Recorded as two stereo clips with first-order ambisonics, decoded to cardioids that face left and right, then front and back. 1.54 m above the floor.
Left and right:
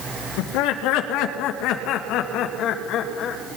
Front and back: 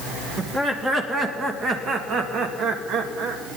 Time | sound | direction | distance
0.4 | laughter | 100° left | 2.5 m